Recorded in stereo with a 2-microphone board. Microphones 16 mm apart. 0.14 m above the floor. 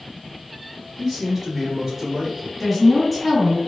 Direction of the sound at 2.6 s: 5° right (ahead or behind).